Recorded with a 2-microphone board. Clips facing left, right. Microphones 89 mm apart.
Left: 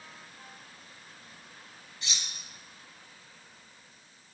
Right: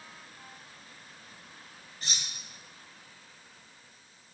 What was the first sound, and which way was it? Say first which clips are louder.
Cutlery clinking: right 1 dB; 40° right (ahead or behind).